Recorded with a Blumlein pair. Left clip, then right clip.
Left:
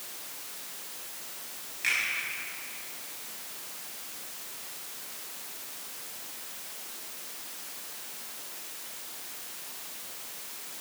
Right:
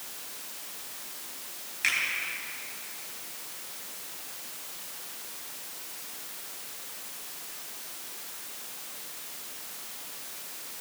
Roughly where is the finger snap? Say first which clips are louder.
Right 1 dB; ahead.